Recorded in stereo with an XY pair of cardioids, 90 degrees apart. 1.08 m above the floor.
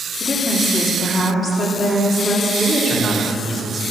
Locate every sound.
0.2 s a woman speaking: 35° left, 2.5 m
2.6 s a man speaking: 20° left, 2.5 m